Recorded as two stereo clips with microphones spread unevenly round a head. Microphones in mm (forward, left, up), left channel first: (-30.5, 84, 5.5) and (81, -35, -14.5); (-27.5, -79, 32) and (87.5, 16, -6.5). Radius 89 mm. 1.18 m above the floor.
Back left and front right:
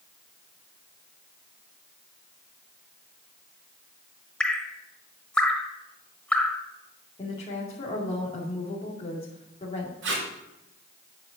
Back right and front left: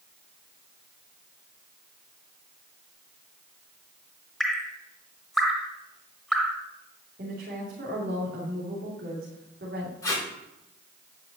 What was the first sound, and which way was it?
Dripping, straight behind.